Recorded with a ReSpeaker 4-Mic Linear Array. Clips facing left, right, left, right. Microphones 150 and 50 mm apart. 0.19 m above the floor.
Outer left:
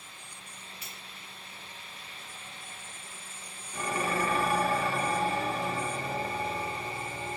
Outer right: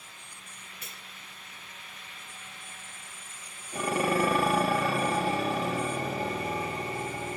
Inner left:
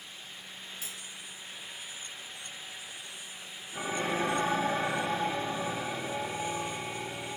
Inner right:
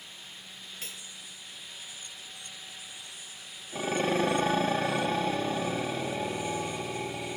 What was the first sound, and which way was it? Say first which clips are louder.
Cutlery clinking: even, even; 50° right (ahead or behind).